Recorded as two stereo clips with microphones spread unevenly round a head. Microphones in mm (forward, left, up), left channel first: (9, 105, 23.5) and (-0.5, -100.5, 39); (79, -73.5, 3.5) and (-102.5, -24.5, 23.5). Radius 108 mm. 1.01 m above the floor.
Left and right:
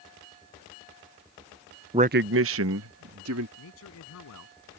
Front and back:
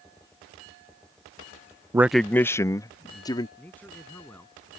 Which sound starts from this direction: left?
A man speaking, at 3.6 s.